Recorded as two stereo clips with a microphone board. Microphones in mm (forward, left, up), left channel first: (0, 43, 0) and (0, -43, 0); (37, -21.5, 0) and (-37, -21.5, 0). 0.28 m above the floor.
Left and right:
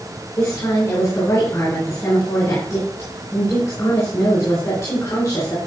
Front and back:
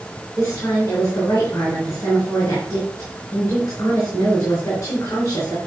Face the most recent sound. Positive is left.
turn(degrees=45)